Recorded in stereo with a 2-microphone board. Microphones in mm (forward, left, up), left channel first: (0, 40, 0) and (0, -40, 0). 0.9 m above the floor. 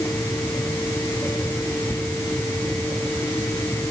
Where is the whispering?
55° left (ahead or behind).